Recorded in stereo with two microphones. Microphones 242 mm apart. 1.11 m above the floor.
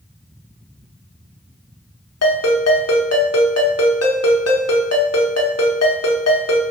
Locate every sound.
2.2 s a ringtone: 85° left, 0.8 m